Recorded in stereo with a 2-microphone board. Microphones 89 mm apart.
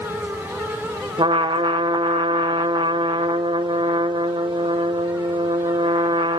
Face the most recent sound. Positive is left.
turn(degrees=-70)  # may be behind; listen again after turning